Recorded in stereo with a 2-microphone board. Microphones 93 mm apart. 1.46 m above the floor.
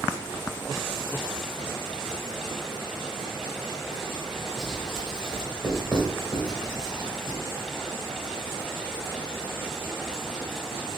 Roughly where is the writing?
Centre.